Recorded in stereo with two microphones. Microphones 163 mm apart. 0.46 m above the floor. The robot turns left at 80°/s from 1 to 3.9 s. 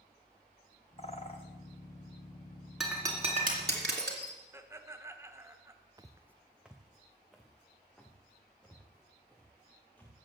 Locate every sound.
1.0 s a bird: 35° left (ahead or behind), 1.3 m; by 1.4 s 30° left (ahead or behind), 1.3 m
2.8 s breaking glass: centre (ahead or behind), 2.5 m; by 4.3 s 85° right, 2.5 m
4.5 s laughter: 15° right (ahead or behind), 1.1 m
6.0 s footsteps: 20° right (ahead or behind), 0.7 m; by 10.2 s 10° left (ahead or behind), 4.5 m